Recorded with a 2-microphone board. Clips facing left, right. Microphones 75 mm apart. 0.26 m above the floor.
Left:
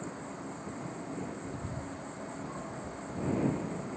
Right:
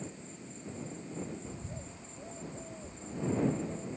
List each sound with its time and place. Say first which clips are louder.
0.0 s an insect: left 5 dB; 65° left (ahead or behind)
1.4 s a bird: left 5 dB; 5° right (ahead or behind)